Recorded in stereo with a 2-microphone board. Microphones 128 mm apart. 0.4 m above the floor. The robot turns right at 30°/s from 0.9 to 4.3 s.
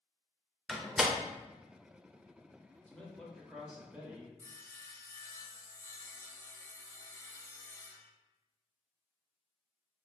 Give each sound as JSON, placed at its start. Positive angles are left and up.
{"t": 0.7, "sound": "a door slam", "side_deg": 0, "distance_m": 0.6}
{"t": 2.9, "sound": "a man speaking", "azimuth_deg": 160, "distance_m": 1.5}
{"t": 4.4, "sound": "sawing", "side_deg": 20, "distance_m": 0.6}